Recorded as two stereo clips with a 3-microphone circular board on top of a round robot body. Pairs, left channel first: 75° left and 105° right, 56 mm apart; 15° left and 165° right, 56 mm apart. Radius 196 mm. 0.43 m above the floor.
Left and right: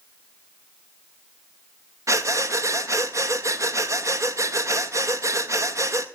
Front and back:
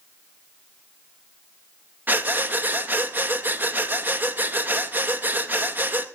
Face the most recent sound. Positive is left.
turn(degrees=-115)